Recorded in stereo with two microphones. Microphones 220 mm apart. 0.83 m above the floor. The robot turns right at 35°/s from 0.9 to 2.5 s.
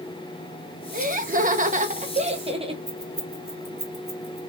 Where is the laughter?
100° right, 0.9 m; by 2.8 s 45° right, 0.9 m.